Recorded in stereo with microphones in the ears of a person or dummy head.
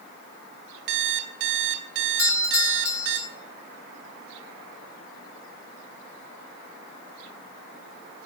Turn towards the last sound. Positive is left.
turn(degrees=15)  # may be behind; listen again after turning